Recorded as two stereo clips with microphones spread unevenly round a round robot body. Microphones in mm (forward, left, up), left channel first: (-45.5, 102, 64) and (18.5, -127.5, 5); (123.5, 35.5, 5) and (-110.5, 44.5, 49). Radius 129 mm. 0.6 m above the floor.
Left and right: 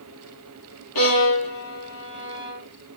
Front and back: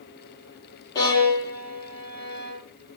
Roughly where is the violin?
Left.